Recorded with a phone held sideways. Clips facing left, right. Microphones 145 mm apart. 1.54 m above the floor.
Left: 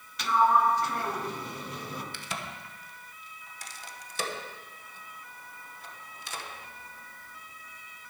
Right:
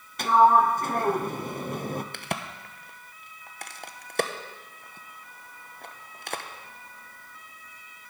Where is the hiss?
No hiss in this recording.